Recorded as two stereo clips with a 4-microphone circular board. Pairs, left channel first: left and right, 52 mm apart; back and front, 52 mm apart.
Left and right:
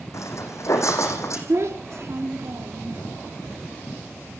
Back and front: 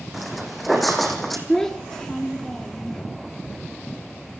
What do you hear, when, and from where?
0.1 s footsteps: 90° left, 5.5 m; by 1.4 s 95° left, 4.5 m
1.5 s a child speaking: 100° right, 2 m